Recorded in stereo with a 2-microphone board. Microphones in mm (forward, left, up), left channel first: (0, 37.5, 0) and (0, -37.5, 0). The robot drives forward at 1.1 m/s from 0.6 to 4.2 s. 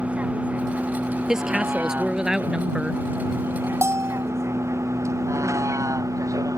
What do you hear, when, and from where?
0.0 s a vehicle: 15° right (ahead or behind); by 6.6 s 45° right (ahead or behind)
1.3 s a woman speaking: 5° right (ahead or behind); by 3.0 s 10° right (ahead or behind)
3.8 s a bell: 35° right (ahead or behind); by 4.2 s 45° right (ahead or behind)